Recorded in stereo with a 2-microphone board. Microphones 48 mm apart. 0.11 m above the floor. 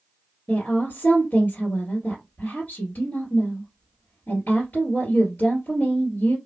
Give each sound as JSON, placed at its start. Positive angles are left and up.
{"t": 0.5, "sound": "a woman speaking", "side_deg": 35, "distance_m": 2.0}